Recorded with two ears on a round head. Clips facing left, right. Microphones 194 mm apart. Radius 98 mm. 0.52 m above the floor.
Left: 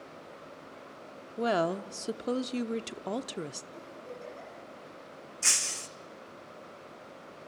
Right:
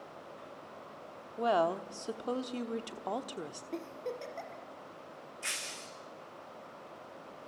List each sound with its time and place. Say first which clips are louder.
1.4 s a woman speaking: left 1 dB; 25° left (ahead or behind), 0.8 m
3.7 s a giggle: right 5 dB; 70° right (ahead or behind), 3.5 m
5.4 s breaking glass: left 3 dB; 65° left (ahead or behind), 1.3 m